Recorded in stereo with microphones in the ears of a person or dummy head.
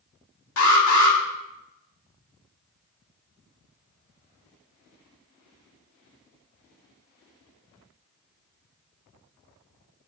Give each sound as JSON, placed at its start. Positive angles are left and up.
{"t": 0.6, "sound": "an alarm", "side_deg": 80, "distance_m": 2.5}